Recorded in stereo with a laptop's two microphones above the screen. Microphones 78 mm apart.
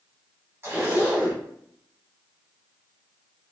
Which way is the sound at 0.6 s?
30° right (ahead or behind).